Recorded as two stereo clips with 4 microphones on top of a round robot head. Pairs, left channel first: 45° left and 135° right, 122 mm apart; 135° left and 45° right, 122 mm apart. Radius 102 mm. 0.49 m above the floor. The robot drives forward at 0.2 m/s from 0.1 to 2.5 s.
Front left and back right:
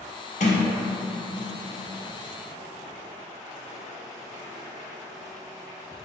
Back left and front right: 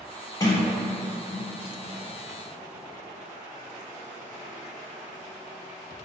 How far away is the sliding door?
About 0.7 m.